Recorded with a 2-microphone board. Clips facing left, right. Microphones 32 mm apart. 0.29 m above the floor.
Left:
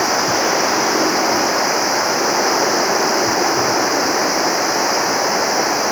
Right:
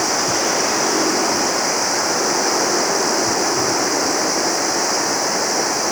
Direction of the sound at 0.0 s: 15° left (ahead or behind).